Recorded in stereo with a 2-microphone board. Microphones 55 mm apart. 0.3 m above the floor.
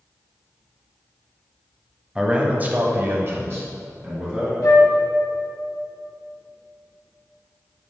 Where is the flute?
70° left (ahead or behind), 2.5 m.